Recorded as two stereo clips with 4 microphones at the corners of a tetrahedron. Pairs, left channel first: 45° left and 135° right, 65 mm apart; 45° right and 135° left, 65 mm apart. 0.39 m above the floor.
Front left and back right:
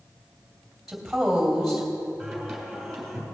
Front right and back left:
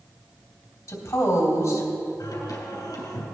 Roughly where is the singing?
Ahead right.